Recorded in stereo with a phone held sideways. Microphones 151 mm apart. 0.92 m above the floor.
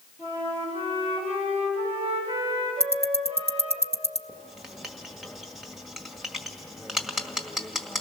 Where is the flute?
40° right (ahead or behind), 6 m.